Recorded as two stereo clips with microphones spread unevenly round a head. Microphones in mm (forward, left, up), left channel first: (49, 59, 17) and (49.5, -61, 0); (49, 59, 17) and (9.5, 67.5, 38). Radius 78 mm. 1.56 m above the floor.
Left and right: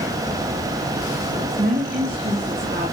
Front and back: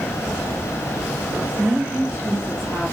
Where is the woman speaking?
125° right, 2.5 m; by 2.9 s 105° right, 3 m.